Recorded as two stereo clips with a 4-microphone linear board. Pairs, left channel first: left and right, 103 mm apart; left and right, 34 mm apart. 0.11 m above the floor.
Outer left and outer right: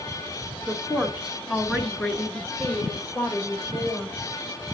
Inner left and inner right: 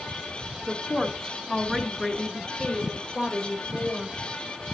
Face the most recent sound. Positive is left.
turn(degrees=20)  # may be behind; listen again after turning